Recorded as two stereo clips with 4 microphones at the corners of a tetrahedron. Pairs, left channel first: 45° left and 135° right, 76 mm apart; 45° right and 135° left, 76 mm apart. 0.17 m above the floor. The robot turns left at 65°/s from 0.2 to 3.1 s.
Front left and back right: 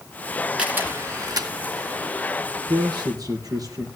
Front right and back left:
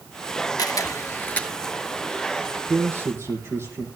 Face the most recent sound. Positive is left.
turn(degrees=-170)